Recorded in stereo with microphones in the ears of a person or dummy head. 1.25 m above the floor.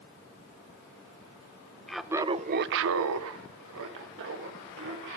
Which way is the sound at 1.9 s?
Centre (ahead or behind).